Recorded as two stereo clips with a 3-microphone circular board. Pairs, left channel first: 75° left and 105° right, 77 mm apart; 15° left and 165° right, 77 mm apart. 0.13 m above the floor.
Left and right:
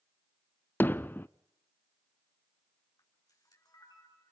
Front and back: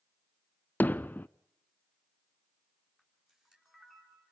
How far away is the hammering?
About 0.5 m.